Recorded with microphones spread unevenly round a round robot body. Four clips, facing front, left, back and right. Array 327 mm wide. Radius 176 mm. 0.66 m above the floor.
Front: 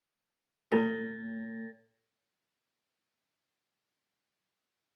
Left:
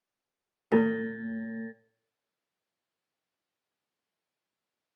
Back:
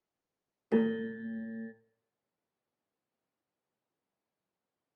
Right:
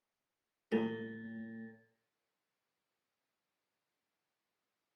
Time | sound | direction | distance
0.7 | a piano | 55° left | 0.7 m